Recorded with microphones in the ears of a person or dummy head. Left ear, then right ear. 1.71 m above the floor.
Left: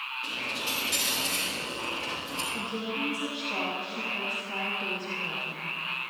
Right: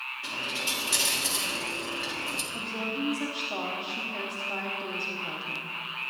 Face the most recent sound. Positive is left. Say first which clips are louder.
# even
turn(degrees=-5)  # may be behind; listen again after turning